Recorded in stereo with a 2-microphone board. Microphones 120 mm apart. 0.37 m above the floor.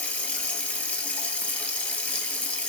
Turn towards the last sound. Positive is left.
turn(degrees=10)  # may be behind; listen again after turning